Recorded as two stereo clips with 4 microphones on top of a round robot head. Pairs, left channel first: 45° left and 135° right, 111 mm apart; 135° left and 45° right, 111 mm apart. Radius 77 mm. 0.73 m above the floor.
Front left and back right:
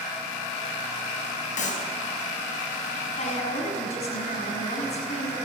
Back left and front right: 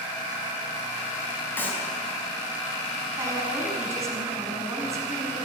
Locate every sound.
1.6 s a clap: 60° left, 5 m
3.2 s a woman speaking: 20° left, 6.5 m